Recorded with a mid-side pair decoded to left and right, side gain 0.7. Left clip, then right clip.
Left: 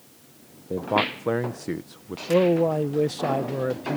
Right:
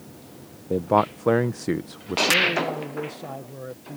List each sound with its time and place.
0.7 s a man speaking: 20° right
2.3 s a man speaking: 45° left